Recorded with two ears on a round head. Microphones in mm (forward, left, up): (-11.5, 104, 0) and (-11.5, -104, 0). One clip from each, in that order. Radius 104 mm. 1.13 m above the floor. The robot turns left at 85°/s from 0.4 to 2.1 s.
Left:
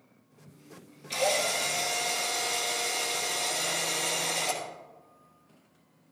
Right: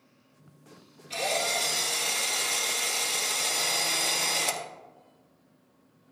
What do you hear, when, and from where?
1.1 s a drill: 25° left, 1.8 m; by 4.6 s 60° right, 1.8 m